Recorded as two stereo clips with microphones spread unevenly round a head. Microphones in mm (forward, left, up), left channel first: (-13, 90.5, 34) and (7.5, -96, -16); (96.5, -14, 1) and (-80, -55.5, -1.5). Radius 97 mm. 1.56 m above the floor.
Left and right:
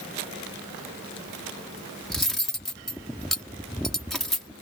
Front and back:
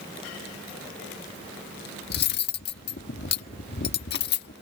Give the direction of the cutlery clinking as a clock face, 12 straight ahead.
11 o'clock.